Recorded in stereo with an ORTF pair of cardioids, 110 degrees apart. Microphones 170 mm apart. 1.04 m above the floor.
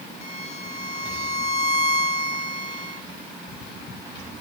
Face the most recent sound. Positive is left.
turn(degrees=40)